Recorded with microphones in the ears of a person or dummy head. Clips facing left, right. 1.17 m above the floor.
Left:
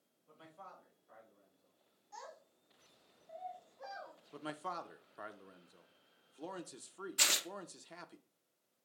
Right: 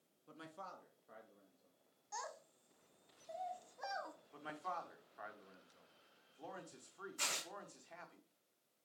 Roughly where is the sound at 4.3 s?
Left.